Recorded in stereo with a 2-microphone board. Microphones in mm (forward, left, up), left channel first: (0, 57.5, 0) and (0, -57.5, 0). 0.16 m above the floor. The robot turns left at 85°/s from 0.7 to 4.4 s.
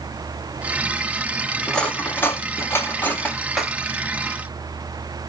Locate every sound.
1.7 s cutlery clinking: 5° left (ahead or behind), 0.6 m; by 3.7 s 5° right (ahead or behind), 0.6 m